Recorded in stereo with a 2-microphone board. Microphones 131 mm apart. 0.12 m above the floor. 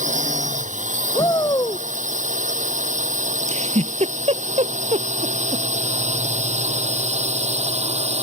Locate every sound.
0.0 s a drone: 70° right (ahead or behind); by 8.2 s 55° right (ahead or behind)
1.1 s a shout: 30° left (ahead or behind)
3.5 s a giggle: 60° right (ahead or behind)